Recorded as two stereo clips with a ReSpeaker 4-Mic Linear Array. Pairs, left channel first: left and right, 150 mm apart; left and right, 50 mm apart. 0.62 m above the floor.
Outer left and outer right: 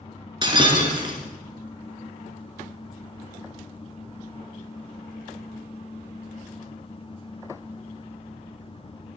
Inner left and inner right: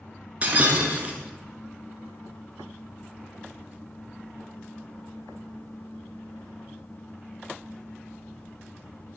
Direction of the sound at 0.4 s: 30° right (ahead or behind).